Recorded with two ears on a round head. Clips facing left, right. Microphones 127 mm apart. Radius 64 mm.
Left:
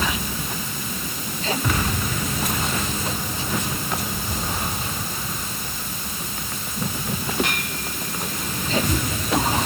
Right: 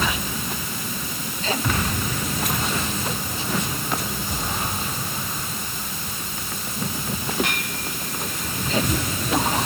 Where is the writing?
No writing in this recording.